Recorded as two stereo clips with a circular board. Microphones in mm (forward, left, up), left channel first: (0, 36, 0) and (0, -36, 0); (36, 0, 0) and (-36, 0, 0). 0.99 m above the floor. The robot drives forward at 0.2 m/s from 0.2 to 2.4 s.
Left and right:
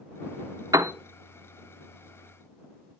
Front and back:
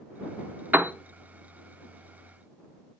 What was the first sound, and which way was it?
A piano, 115° right.